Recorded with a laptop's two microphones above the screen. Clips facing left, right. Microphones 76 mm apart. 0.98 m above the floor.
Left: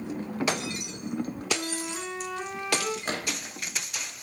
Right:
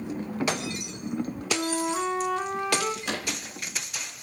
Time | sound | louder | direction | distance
1.5 | a flute | right 5 dB | 30° right (ahead or behind) | 3 m
3.0 | a gunshot | even | 40° left (ahead or behind) | 3.5 m